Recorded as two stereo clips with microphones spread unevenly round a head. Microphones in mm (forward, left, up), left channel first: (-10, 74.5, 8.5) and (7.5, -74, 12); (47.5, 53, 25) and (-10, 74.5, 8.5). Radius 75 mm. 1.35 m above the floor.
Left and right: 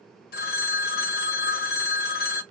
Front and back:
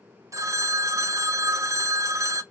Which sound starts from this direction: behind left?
A phone ringing, at 0.3 s.